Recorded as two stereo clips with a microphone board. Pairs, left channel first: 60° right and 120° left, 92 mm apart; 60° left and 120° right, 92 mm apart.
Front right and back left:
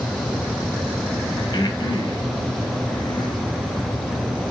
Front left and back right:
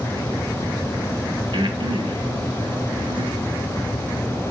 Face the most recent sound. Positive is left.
turn(degrees=-95)